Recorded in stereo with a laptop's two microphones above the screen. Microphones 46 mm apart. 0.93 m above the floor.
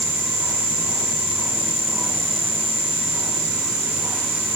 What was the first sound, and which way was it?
Only background noise.